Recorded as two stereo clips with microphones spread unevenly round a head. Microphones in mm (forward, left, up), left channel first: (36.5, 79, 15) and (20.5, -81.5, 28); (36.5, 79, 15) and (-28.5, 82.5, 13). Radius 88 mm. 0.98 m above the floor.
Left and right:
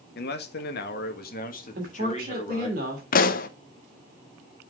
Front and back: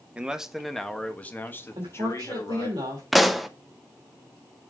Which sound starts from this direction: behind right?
A woman speaking, at 1.8 s.